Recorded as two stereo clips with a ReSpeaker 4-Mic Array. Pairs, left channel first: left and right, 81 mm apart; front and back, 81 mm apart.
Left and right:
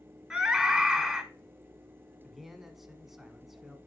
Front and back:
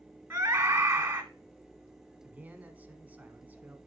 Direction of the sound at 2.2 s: 175° right.